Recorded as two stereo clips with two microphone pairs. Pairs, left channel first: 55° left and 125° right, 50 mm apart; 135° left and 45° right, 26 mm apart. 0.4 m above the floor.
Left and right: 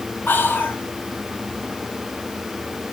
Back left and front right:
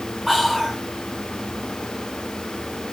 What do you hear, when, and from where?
0.3 s whispering: 35° left, 1.1 m